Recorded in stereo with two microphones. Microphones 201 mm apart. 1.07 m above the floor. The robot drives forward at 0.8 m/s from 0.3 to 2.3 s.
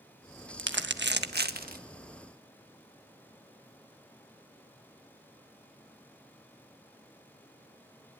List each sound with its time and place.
0.6 s crumpling: 70° right (ahead or behind), 1.3 m; by 1.8 s 45° right (ahead or behind), 1.7 m